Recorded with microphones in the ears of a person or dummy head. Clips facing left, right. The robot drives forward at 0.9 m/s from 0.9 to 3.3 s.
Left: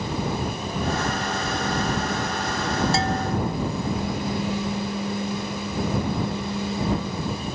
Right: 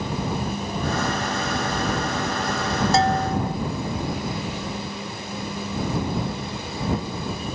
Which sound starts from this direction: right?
A bell, at 2.9 s.